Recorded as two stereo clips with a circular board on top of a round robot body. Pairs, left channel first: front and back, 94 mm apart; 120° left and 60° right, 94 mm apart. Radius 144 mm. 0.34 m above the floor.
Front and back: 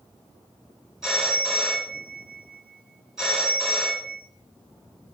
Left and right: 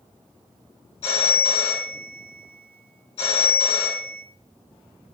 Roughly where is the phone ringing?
Left.